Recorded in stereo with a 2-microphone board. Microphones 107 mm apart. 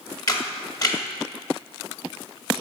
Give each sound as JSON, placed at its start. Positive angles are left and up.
{"t": 0.3, "sound": "a camera shutter", "side_deg": 35, "distance_m": 1.1}